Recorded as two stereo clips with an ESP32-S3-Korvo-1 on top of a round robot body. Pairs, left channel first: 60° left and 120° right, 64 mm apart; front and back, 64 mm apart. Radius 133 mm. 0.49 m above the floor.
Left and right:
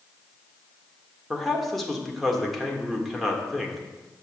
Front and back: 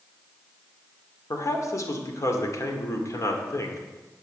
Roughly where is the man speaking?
Ahead right.